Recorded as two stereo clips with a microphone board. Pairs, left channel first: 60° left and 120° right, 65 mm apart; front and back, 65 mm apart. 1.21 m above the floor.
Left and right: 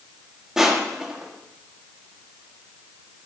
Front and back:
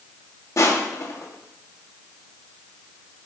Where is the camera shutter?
No camera shutter in this recording.